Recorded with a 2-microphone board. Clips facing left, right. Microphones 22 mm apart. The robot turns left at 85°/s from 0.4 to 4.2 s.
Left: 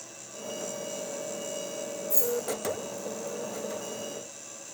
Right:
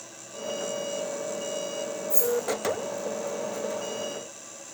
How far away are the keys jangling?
About 1.5 m.